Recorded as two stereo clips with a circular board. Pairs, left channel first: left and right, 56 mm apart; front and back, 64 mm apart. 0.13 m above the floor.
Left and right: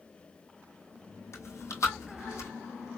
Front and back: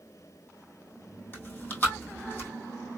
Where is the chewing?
60° left, 1.9 m.